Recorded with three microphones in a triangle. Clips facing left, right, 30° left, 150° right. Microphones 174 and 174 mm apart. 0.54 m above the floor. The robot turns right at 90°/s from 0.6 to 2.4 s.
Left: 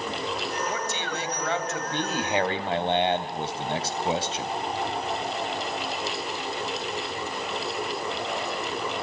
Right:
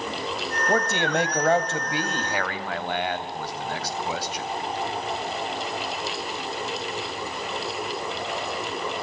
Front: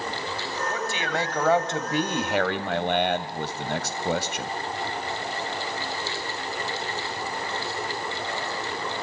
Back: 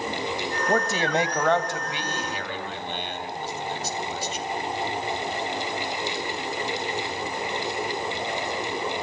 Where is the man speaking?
125° right, 2.5 m; by 4.5 s 30° left, 2.5 m.